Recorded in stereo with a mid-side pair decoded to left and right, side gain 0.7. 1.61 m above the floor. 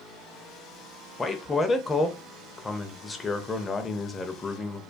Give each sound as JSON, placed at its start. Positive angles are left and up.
{"t": 1.2, "sound": "a man speaking", "azimuth_deg": 15, "distance_m": 0.5}